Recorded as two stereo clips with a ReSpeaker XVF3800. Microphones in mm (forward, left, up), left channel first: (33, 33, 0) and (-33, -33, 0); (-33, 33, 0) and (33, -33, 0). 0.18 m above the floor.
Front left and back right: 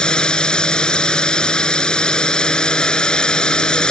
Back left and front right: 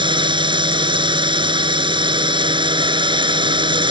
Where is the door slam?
I don't hear a door slam.